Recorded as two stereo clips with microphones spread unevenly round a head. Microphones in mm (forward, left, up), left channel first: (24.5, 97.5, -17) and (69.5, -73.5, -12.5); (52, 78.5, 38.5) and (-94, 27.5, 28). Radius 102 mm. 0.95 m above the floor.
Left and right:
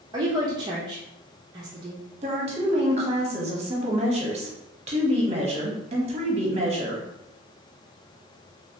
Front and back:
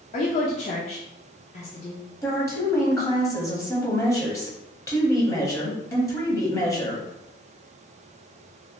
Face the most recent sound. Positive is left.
turn(degrees=-45)